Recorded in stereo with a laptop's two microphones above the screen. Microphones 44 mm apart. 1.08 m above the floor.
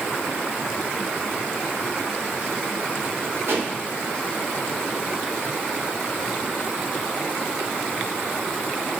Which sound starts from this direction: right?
A pop, at 3.5 s.